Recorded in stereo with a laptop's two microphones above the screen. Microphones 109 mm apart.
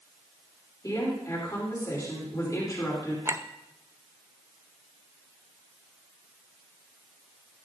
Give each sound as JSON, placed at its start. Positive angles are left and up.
{"t": 0.8, "sound": "a woman speaking", "side_deg": 35, "distance_m": 3.0}
{"t": 3.2, "sound": "a clink", "side_deg": -25, "distance_m": 0.5}